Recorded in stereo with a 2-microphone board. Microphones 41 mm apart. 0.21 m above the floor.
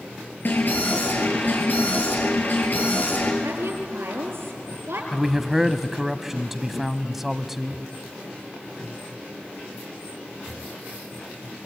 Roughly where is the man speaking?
Centre.